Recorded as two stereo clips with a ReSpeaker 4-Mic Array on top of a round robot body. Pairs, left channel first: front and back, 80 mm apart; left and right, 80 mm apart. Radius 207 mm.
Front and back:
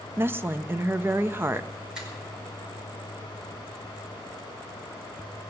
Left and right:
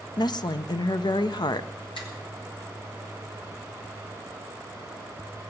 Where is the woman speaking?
120° left, 0.7 m.